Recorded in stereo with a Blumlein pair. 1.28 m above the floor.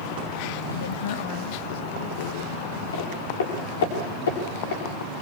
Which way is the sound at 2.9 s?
65° left.